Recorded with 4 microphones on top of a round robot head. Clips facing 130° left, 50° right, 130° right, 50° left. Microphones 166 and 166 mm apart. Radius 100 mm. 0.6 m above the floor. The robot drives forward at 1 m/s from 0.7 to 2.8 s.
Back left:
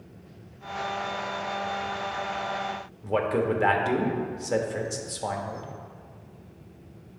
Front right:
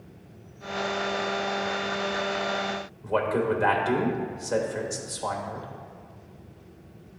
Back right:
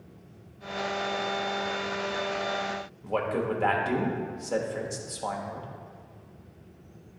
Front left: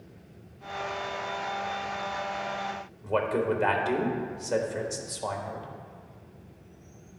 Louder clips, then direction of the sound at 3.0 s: Even, front left 2 dB; 125° left.